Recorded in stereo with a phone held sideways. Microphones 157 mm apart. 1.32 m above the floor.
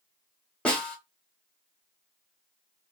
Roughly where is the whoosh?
I don't hear a whoosh.